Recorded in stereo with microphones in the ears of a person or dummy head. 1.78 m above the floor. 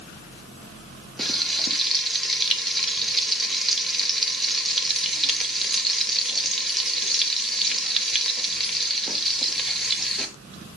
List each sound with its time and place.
1.2 s frying: 5° left (ahead or behind), 1.0 m